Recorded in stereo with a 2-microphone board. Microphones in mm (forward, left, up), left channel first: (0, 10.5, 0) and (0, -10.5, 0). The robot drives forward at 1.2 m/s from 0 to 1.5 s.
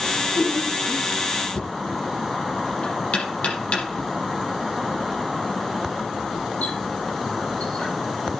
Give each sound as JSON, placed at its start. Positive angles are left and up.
{"t": 0.1, "sound": "laughter", "side_deg": 55, "distance_m": 5.5}
{"t": 1.6, "sound": "knocking", "side_deg": 80, "distance_m": 7.0}